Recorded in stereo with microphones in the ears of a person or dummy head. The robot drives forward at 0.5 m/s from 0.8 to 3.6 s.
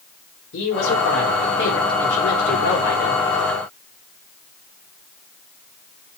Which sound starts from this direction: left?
A woman speaking, at 0.5 s.